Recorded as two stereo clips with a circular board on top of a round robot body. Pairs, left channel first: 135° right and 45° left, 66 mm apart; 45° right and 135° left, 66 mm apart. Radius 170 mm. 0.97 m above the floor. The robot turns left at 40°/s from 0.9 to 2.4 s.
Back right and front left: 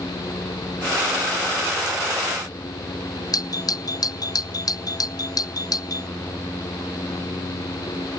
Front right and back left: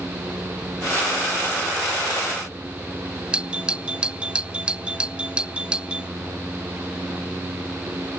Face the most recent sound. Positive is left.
turn(degrees=-150)